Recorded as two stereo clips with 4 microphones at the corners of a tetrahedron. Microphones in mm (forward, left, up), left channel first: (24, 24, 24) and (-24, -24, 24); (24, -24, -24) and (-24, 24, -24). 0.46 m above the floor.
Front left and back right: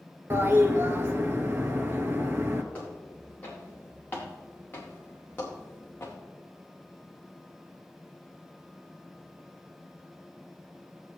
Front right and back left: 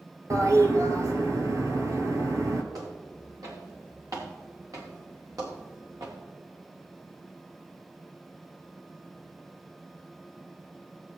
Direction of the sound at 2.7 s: 110° left.